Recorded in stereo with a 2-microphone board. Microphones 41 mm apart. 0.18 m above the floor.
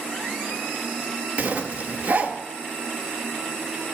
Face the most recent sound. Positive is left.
turn(degrees=-35)  # may be behind; listen again after turning